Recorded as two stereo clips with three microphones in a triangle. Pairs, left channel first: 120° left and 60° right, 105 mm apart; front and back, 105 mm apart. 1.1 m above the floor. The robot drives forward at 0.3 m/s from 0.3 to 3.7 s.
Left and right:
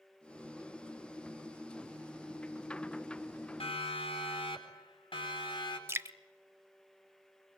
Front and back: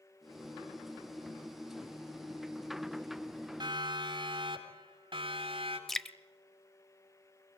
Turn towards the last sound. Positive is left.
turn(degrees=-85)